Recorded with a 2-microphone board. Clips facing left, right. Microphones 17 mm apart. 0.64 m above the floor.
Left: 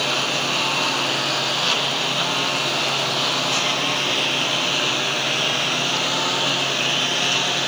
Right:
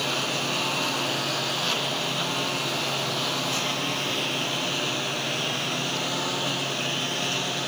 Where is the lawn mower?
25° left (ahead or behind); by 7.7 s 30° left (ahead or behind).